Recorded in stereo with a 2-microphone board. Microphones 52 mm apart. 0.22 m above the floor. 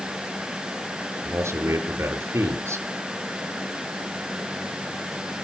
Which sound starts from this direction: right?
A man speaking, at 1.2 s.